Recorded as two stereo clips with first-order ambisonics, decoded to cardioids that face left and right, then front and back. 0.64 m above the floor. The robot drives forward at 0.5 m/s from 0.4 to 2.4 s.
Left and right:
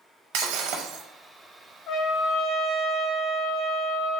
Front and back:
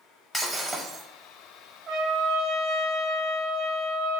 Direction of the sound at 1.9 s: 135° left.